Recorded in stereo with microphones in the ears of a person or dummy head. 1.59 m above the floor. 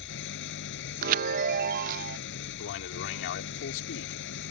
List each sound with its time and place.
0.0 s an engine running: 70° left (ahead or behind)
1.0 s a chime: 50° right (ahead or behind)
2.6 s a man speaking: 70° left (ahead or behind)